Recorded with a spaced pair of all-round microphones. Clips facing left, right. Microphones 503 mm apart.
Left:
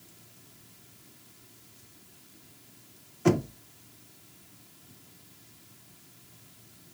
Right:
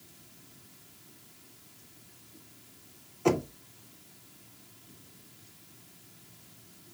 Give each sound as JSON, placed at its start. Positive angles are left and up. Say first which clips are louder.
{"t": 3.2, "sound": "knocking", "louder": "left 2 dB", "side_deg": 35, "distance_m": 0.7}